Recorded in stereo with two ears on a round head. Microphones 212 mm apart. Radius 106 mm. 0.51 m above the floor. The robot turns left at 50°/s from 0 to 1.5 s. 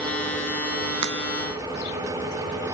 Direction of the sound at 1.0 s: 80° right.